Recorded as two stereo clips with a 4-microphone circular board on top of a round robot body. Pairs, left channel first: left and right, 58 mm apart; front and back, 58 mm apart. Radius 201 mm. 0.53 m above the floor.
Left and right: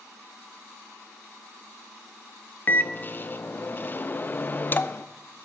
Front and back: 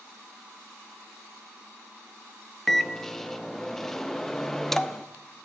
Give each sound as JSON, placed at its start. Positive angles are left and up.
{"t": 2.7, "sound": "a microwave", "azimuth_deg": 80, "distance_m": 0.7}